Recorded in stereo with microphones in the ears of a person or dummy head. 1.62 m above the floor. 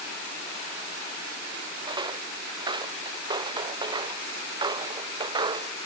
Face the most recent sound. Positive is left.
turn(degrees=-30)  # may be behind; listen again after turning